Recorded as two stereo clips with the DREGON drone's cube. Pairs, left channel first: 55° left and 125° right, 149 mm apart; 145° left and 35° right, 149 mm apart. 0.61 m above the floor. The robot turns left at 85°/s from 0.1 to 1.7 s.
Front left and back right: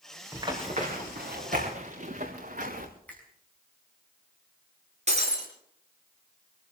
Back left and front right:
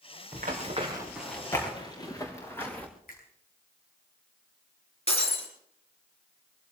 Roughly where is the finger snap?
Behind left.